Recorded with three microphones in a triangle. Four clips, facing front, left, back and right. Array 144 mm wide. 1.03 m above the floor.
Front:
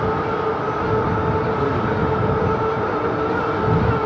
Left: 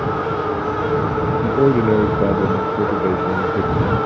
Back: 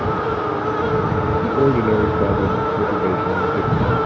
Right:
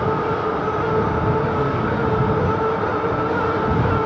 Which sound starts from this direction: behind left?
A man speaking, at 1.4 s.